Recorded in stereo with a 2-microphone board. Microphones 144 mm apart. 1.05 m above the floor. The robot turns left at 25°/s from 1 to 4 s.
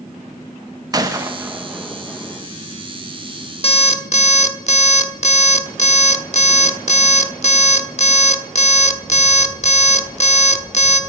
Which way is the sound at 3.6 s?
45° left (ahead or behind).